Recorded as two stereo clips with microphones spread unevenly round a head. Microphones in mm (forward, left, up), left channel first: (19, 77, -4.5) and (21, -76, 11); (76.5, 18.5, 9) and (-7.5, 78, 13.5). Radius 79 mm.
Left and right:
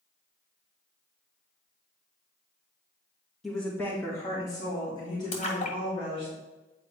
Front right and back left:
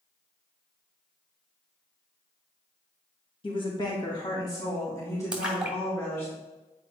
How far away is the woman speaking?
About 1.9 m.